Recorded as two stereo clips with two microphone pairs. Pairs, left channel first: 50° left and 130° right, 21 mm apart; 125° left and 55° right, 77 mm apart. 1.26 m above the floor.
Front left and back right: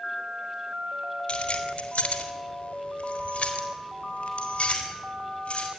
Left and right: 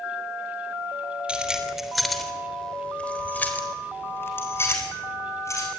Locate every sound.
1.3 s keys jangling: 20° left, 3.5 m; by 5.7 s 70° left, 6 m